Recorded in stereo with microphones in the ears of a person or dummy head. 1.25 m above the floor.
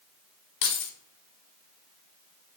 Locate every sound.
0.6 s keys jangling: 60° left (ahead or behind), 0.7 m